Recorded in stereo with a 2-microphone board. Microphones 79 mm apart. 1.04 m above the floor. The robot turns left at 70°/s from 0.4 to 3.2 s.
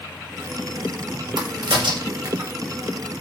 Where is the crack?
65° right (ahead or behind), 1.6 m; by 2.5 s 30° right (ahead or behind), 1.6 m.